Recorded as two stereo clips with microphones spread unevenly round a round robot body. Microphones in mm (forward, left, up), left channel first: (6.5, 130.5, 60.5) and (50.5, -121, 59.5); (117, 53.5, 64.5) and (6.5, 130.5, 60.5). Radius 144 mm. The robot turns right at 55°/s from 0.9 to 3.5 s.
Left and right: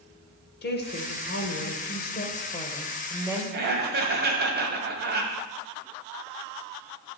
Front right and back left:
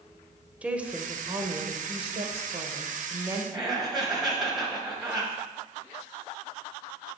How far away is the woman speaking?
About 1.1 m.